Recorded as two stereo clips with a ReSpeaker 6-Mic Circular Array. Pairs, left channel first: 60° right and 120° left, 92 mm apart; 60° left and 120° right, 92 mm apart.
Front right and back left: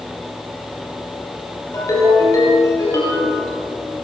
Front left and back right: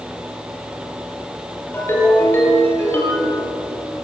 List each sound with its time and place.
1.7 s a ringtone: 5° right, 5 m